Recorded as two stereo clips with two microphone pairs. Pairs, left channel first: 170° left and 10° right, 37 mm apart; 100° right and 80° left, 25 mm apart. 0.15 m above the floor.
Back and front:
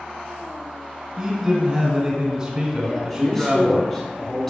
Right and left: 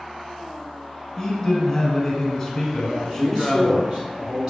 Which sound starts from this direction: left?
A man speaking, at 2.8 s.